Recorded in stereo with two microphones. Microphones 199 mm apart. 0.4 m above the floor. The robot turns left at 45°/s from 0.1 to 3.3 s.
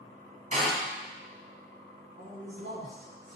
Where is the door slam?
35° right (ahead or behind), 2 m; by 0.7 s 45° right (ahead or behind), 2 m.